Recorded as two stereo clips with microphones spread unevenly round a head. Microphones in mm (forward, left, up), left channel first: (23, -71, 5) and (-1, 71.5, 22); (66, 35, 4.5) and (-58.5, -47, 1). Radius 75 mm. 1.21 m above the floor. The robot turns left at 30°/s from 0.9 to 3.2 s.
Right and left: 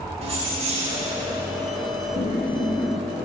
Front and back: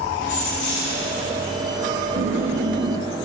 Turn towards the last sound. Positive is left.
turn(degrees=-165)